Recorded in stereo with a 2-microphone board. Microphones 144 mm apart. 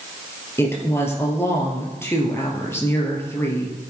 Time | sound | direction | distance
0.6 | a woman speaking | 15° left (ahead or behind) | 2.5 m